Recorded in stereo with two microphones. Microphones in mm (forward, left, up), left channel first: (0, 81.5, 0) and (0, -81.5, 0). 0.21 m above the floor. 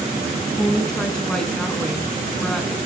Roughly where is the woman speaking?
Centre.